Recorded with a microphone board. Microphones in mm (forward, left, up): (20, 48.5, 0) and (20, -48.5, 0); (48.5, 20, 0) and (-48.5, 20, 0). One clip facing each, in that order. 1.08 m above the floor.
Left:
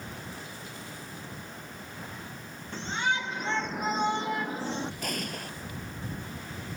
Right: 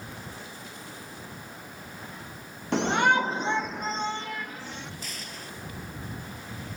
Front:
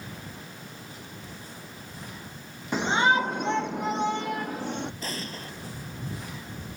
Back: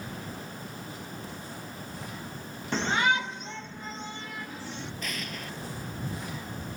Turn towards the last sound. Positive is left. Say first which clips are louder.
# left 6 dB, front 1 dB
turn(degrees=55)